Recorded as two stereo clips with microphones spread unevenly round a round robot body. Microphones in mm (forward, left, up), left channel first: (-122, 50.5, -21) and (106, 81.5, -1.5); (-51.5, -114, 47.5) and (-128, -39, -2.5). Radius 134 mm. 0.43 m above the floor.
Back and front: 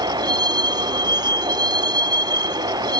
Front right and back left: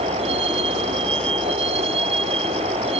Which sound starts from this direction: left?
A vehicle, at 0.0 s.